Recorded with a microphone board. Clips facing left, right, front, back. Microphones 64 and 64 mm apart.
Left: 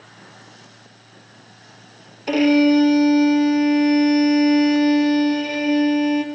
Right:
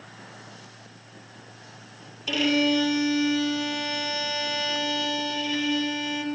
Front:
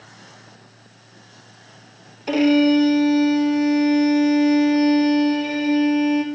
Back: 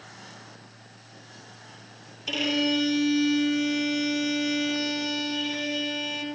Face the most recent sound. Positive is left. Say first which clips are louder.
# left 8 dB, front 11 dB
turn(degrees=45)